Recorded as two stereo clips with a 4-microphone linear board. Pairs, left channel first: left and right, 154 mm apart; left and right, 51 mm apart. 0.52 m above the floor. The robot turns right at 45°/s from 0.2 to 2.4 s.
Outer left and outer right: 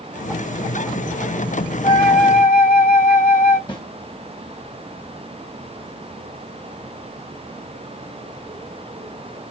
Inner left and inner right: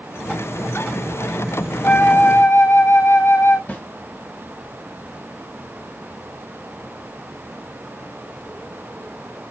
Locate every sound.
1.8 s a flute: 75° left (ahead or behind), 1.4 m; by 3.6 s 70° left (ahead or behind), 1.4 m
3.7 s a snare drum: 35° left (ahead or behind), 1.1 m